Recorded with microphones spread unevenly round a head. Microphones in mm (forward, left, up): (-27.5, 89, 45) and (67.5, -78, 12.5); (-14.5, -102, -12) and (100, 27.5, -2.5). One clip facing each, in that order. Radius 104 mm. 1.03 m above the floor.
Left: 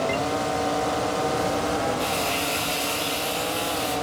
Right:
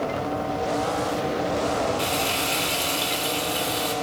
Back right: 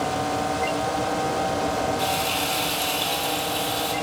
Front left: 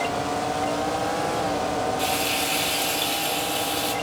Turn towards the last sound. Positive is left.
turn(degrees=-20)